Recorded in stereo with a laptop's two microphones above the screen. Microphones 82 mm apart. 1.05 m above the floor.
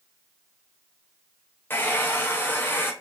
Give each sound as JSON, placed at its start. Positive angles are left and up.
{"t": 1.7, "sound": "a hair dryer", "side_deg": 25, "distance_m": 0.5}